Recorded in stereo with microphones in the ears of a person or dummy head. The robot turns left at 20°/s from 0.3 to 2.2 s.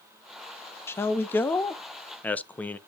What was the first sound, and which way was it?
A man speaking, 15° left (ahead or behind).